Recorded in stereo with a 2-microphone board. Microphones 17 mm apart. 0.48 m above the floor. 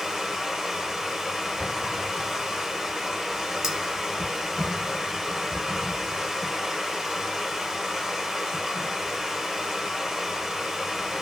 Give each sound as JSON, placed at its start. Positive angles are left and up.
{"t": 0.0, "sound": "running water", "side_deg": -40, "distance_m": 0.8}
{"t": 1.6, "sound": "an explosion", "side_deg": -25, "distance_m": 2.0}
{"t": 3.6, "sound": "cutlery clinking", "side_deg": -40, "distance_m": 1.0}